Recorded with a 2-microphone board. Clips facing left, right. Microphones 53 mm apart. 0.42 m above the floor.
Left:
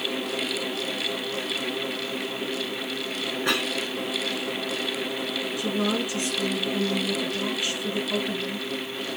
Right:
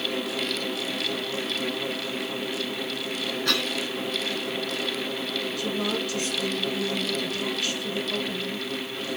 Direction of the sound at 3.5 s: 20° left (ahead or behind).